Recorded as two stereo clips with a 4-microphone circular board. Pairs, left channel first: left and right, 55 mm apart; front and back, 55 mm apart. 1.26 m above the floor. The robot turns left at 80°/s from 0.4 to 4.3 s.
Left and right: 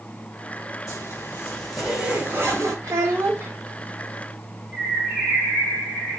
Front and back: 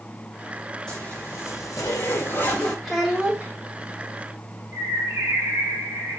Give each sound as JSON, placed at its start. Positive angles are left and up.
{"t": 0.9, "sound": "a zipper", "azimuth_deg": 80, "distance_m": 4.5}
{"t": 2.8, "sound": "a child speaking", "azimuth_deg": -80, "distance_m": 1.4}
{"t": 4.7, "sound": "a bird", "azimuth_deg": 180, "distance_m": 5.0}